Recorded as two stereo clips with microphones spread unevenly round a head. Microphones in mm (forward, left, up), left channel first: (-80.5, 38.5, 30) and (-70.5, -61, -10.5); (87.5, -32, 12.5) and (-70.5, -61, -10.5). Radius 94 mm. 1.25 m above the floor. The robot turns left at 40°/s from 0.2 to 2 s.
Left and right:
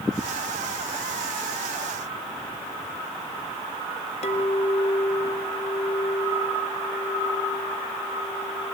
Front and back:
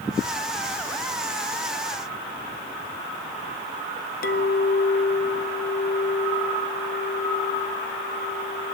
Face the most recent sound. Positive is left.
turn(degrees=55)